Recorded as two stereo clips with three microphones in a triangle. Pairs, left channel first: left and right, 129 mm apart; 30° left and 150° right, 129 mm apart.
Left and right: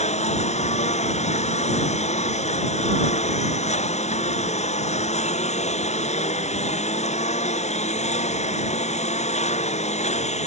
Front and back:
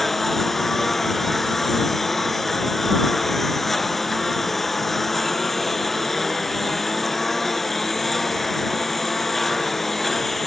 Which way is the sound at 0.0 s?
120° left.